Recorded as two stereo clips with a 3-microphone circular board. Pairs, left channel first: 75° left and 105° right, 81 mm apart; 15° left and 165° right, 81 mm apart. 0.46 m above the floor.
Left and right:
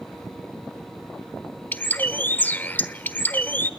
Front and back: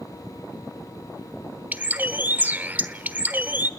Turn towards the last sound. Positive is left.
turn(degrees=135)